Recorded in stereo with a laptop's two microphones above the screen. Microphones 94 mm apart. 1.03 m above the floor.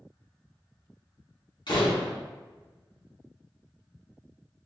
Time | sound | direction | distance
1.7 | a door slam | 55° left (ahead or behind) | 0.8 m